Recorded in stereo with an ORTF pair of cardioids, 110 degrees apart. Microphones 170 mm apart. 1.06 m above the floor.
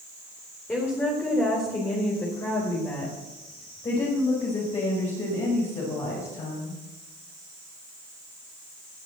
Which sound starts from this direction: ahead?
A woman speaking, at 0.7 s.